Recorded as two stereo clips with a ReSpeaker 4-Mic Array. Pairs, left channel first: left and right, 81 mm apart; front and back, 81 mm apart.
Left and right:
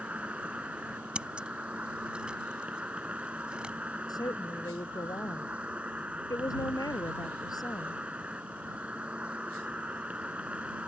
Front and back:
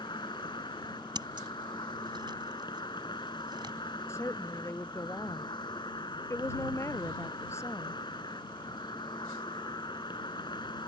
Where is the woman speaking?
55° left.